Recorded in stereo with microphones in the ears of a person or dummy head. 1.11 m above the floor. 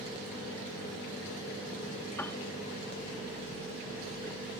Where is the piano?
5° left (ahead or behind).